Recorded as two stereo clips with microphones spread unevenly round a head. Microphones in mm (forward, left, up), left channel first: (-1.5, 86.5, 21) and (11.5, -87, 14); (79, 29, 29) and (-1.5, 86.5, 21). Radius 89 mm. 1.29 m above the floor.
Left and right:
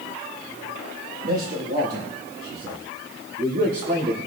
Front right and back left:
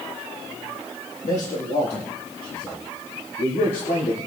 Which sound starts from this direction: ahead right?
A man speaking, at 1.2 s.